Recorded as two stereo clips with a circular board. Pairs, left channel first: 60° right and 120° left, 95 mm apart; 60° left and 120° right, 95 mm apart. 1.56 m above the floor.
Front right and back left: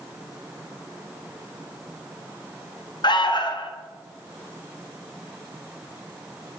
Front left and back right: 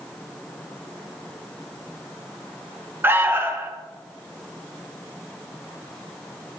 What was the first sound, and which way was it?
An alarm, 60° right.